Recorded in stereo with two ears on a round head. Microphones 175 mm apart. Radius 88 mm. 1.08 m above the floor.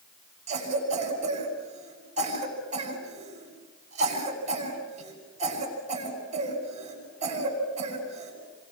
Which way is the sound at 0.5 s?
35° right (ahead or behind).